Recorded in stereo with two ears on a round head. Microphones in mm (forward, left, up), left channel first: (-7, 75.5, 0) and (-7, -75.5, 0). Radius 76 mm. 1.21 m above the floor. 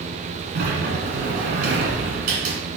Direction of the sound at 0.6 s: 55° right (ahead or behind).